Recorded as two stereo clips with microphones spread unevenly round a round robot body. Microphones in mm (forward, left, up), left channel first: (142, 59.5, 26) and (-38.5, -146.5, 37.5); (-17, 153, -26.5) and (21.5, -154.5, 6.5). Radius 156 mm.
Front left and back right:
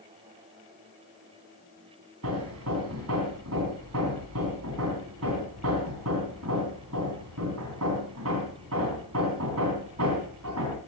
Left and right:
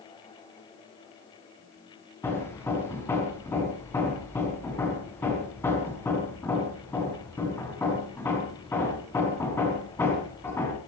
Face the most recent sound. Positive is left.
turn(degrees=180)